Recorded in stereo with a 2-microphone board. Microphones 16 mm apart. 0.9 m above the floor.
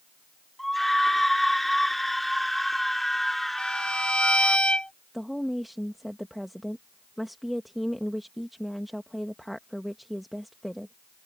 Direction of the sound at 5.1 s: Centre (ahead or behind).